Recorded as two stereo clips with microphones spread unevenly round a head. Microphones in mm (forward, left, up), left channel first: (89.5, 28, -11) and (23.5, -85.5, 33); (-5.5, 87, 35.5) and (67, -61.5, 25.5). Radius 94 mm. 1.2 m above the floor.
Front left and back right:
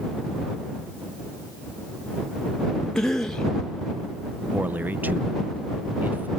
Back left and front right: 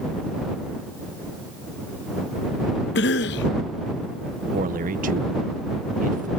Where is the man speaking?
35° right.